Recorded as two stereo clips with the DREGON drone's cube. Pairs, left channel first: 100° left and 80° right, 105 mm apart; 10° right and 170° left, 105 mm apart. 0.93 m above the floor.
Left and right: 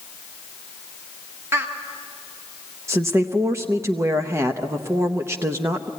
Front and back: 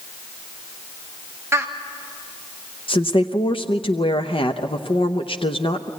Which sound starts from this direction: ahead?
A woman speaking, at 2.9 s.